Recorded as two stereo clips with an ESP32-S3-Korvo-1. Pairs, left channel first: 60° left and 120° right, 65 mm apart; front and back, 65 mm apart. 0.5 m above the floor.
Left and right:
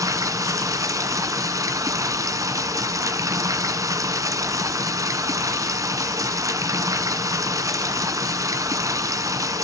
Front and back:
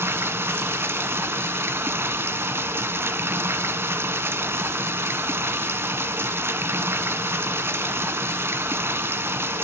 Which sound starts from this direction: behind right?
Running water, at 0.0 s.